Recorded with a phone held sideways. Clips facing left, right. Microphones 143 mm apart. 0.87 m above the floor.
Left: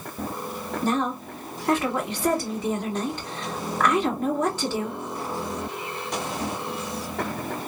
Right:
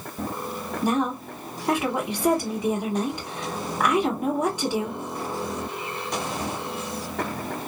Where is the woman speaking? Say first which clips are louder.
Right 1 dB; 10° right (ahead or behind), 1.7 m.